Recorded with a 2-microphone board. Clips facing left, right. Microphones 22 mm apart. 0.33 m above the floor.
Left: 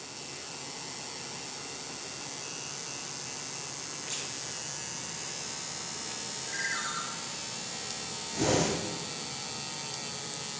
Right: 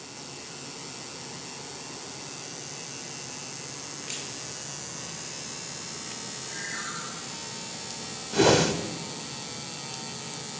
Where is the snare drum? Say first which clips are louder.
Right 1 dB; 30° right (ahead or behind), 3 m.